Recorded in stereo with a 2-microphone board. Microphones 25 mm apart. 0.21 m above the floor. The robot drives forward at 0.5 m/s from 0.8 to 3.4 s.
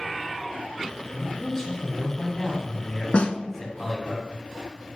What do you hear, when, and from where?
1.1 s a man speaking: 20° left (ahead or behind), 1.6 m
3.1 s a snare drum: 50° left (ahead or behind), 0.5 m; by 3.4 s 60° left (ahead or behind), 0.5 m